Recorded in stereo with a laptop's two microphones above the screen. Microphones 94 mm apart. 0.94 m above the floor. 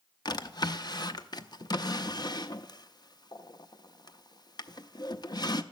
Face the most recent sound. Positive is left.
turn(degrees=45)  # may be behind; listen again after turning